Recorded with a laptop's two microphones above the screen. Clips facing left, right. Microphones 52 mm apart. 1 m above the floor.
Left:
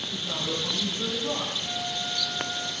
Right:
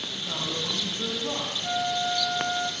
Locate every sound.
0.1 s a man speaking: 10° right (ahead or behind), 7.5 m
1.6 s a flute: 40° right (ahead or behind), 0.8 m